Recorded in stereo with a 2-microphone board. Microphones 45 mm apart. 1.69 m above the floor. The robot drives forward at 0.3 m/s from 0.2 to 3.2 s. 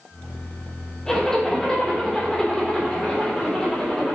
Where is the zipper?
15° left (ahead or behind), 2.5 m; by 4.2 s 10° left (ahead or behind), 3.5 m.